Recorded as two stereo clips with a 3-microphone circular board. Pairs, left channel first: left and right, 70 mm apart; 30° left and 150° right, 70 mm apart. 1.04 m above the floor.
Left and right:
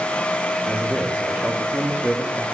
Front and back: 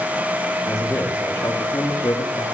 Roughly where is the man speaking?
Ahead.